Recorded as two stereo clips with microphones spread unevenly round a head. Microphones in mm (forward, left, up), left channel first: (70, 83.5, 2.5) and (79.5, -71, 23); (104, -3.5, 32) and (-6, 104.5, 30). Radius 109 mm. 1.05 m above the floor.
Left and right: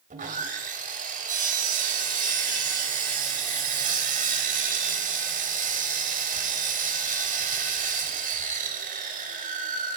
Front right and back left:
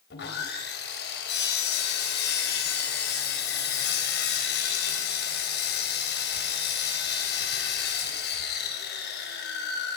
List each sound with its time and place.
0.1 s sawing: 55° right, 3 m